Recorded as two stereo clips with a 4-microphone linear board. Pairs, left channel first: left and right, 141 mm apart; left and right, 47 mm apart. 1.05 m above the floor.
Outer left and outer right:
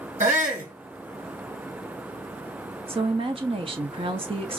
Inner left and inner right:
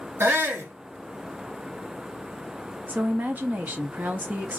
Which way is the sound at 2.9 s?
40° right (ahead or behind).